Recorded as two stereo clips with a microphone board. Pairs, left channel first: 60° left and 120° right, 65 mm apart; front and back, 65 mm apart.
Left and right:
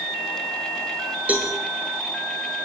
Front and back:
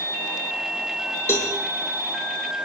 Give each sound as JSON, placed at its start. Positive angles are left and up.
{"t": 1.3, "sound": "a cowbell", "azimuth_deg": -50, "distance_m": 6.0}